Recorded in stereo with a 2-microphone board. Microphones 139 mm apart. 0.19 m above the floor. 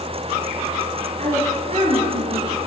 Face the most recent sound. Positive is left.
turn(degrees=-40)  # may be behind; listen again after turning